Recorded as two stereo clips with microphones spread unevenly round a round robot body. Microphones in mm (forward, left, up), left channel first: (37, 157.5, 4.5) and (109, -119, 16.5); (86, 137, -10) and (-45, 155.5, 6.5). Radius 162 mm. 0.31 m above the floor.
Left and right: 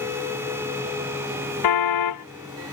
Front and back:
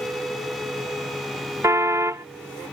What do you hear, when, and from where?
1.6 s a car horn: 105° left